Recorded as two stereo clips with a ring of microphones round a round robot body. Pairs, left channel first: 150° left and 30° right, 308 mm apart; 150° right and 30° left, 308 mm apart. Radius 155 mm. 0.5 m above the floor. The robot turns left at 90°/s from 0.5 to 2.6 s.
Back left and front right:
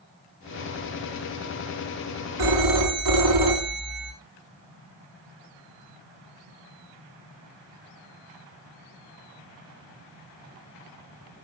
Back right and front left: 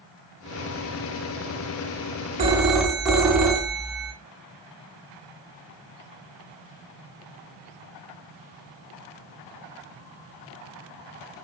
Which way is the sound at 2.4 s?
40° right.